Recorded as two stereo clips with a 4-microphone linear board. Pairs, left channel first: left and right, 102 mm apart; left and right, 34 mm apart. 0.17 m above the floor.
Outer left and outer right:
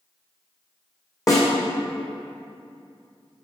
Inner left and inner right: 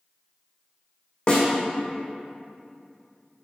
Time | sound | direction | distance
1.3 | a snare drum | 35° left (ahead or behind) | 2 m